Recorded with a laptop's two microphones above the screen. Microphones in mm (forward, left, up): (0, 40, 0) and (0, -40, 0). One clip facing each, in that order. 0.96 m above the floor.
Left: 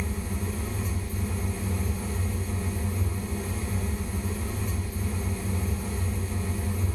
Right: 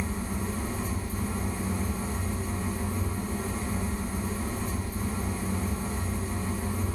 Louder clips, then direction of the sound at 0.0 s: Right 1 dB; 30° right (ahead or behind).